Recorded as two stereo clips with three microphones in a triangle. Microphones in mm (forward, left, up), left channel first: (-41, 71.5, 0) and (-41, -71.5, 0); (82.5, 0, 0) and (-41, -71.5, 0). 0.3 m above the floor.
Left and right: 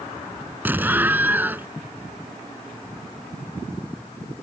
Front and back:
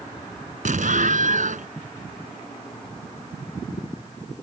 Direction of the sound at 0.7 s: 165° right.